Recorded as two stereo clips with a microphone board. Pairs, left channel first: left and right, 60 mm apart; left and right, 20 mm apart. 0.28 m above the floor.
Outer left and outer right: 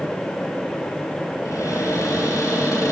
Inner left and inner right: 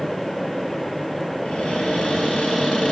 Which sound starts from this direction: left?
A cupboard door, at 1.4 s.